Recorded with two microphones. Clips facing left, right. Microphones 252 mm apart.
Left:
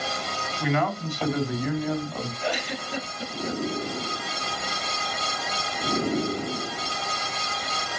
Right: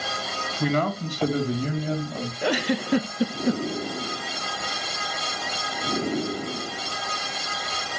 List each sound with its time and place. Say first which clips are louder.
0.6 s a man speaking: right 2 dB; 45° right (ahead or behind), 2 m; by 2.3 s 25° right (ahead or behind), 1.9 m
2.4 s a giggle: right 12 dB; 75° right (ahead or behind), 0.8 m